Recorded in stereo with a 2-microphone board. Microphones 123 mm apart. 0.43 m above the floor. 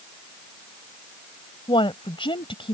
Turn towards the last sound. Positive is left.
turn(degrees=45)  # may be behind; listen again after turning